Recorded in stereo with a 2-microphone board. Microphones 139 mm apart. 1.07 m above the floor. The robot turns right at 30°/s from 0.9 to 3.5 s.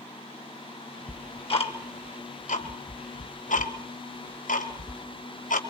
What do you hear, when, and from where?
1.1 s ticking: 30° left (ahead or behind), 2.5 m; by 5.6 s 70° left (ahead or behind), 2.5 m